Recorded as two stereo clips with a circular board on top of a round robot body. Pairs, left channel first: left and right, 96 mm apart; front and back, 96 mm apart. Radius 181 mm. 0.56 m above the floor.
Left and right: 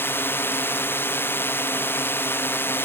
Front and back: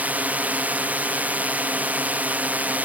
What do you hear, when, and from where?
0.0 s a drone: 125° left